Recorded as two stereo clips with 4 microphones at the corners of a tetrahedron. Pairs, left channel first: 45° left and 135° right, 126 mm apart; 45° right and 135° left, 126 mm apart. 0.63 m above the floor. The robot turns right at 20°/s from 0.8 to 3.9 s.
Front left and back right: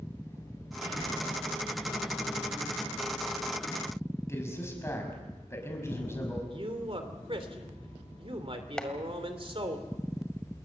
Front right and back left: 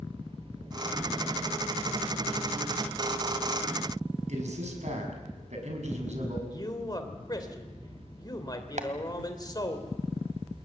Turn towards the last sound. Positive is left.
turn(degrees=130)